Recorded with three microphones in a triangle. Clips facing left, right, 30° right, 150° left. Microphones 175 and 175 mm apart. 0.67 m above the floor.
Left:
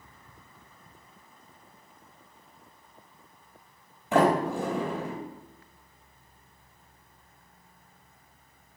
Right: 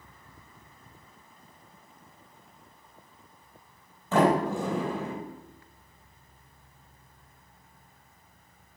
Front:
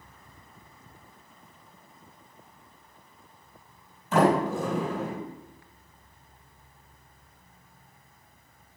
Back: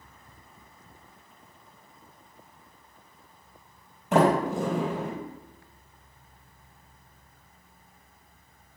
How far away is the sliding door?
About 4.5 m.